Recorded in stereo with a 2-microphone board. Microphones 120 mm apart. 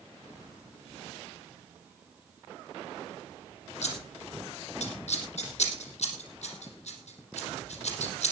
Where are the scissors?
70° left (ahead or behind), 4 m.